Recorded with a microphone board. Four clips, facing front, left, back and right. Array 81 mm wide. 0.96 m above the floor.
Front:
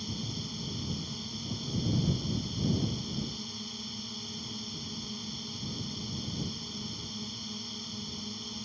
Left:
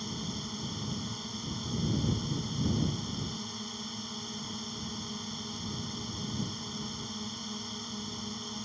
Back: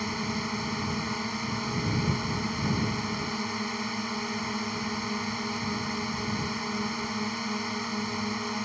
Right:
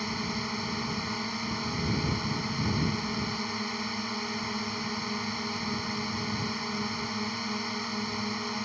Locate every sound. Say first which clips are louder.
0.0 s a drone: right 6 dB, back 8 dB; 145° right